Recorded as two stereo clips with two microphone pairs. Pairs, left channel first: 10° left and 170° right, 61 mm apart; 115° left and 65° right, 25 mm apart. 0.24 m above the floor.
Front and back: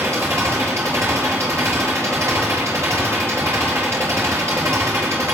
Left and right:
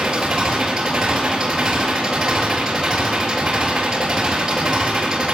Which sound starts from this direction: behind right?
An engine running, at 0.0 s.